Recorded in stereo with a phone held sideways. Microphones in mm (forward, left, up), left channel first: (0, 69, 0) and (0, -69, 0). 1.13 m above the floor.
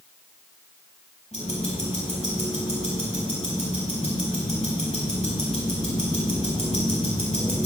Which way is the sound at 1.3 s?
50° left (ahead or behind).